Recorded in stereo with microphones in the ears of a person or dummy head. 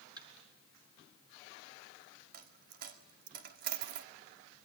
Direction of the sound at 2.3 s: 55° right (ahead or behind).